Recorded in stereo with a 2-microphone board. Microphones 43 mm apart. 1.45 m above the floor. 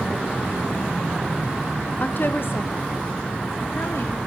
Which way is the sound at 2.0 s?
40° left (ahead or behind).